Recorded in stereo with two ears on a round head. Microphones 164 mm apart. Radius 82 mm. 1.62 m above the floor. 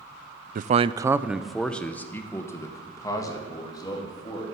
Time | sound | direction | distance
0.6 | a man speaking | 50° right (ahead or behind) | 0.6 m